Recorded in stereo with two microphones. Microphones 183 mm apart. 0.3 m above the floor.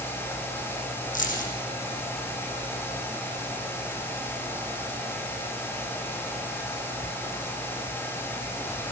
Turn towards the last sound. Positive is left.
turn(degrees=45)  # may be behind; listen again after turning